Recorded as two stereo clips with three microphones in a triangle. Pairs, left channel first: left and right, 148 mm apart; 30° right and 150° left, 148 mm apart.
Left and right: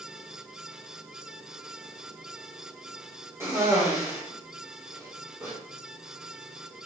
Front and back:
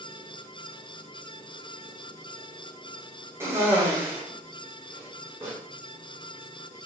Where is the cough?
150° right, 0.9 m.